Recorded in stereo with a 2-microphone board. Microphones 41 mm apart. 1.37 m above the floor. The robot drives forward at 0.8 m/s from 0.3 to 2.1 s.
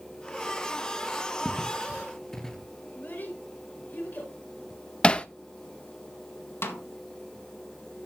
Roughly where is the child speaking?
Left.